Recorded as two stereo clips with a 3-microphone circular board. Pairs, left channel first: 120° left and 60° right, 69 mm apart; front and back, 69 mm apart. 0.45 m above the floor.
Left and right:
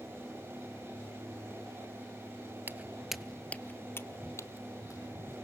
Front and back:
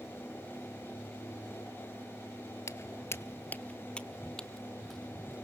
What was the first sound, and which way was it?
Footsteps, 15° right.